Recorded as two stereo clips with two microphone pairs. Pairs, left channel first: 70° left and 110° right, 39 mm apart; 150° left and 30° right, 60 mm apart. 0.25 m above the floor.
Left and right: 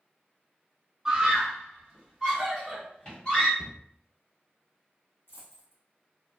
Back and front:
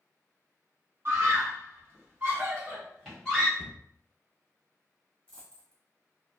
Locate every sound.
1.1 s a scream: 40° right, 2.0 m; by 3.5 s 90° left, 1.6 m
3.6 s a cupboard door: 55° right, 0.7 m
5.3 s a dropped coin: 75° left, 2.0 m